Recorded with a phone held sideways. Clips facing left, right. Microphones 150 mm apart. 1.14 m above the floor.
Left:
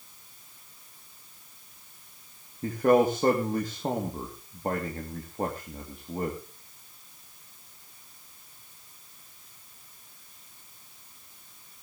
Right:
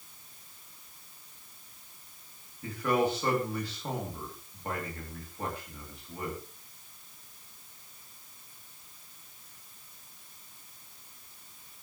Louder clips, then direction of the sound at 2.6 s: Left 7 dB; 45° left (ahead or behind).